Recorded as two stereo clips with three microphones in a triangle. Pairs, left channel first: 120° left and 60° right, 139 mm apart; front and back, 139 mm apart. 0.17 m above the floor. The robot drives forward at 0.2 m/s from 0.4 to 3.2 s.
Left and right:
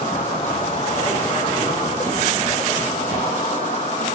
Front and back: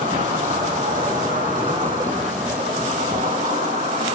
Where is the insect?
170° left, 7 m.